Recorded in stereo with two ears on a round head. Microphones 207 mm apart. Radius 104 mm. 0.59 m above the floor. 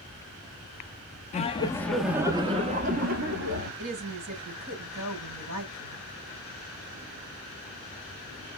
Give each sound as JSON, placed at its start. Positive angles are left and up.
{"t": 1.3, "sound": "laughter", "side_deg": 30, "distance_m": 1.0}
{"t": 3.8, "sound": "a woman speaking", "side_deg": -60, "distance_m": 4.0}